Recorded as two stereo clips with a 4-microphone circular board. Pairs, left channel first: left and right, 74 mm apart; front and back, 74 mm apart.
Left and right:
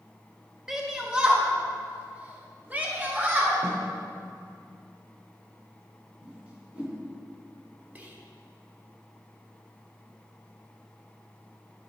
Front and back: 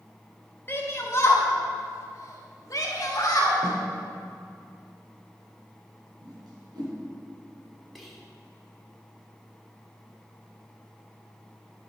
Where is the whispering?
90° right, 1.1 m.